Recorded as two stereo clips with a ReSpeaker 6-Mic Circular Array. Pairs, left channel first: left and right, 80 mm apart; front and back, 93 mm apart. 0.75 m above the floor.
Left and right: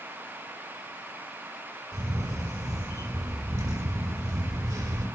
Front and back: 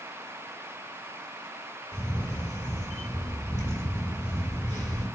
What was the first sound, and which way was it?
A camera shutter, 50° right.